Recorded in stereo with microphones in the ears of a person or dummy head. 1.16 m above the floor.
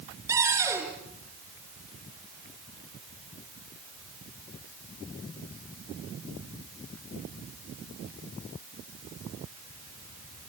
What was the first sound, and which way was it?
A cupboard door, 15° right (ahead or behind).